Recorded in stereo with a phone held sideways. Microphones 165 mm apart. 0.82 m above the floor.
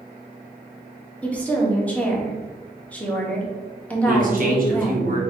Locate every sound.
1.2 s a woman speaking: 10° left (ahead or behind), 1.0 m
4.1 s a man speaking: 55° right (ahead or behind), 1.2 m